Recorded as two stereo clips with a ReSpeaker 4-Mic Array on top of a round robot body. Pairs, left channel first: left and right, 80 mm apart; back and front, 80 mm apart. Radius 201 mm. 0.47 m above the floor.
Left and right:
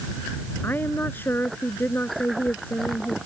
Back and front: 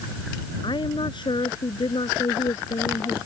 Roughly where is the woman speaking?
Behind left.